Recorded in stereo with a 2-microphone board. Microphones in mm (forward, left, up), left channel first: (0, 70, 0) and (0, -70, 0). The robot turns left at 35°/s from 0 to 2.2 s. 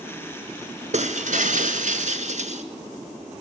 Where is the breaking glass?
65° right, 1.1 m; by 2.6 s 110° right, 1.1 m.